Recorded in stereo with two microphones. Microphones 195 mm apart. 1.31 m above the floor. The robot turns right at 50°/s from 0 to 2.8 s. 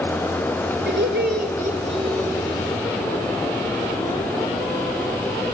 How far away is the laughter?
About 3.5 m.